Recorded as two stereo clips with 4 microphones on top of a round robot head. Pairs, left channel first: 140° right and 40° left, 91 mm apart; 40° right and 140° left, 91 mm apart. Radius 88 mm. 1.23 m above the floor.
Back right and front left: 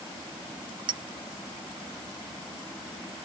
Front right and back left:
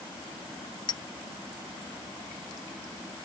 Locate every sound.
0.9 s a clink: 5° left